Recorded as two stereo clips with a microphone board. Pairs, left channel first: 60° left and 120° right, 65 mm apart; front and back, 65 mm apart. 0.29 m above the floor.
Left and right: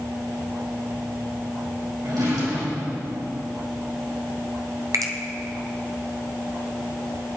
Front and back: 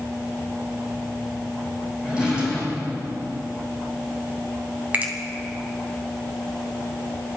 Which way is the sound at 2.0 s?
105° right.